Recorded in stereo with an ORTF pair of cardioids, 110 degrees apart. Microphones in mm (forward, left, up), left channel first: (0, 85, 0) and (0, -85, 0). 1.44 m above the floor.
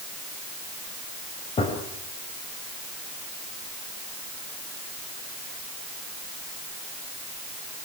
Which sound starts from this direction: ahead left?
A gunshot, at 1.6 s.